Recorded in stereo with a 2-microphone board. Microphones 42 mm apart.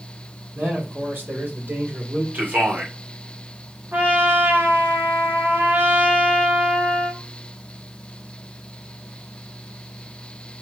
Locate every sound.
0.6 s a man speaking: 55° right (ahead or behind), 3.5 m
2.3 s a man speaking: 45° right (ahead or behind), 2.5 m
3.9 s a trumpet: 55° right (ahead or behind), 1.6 m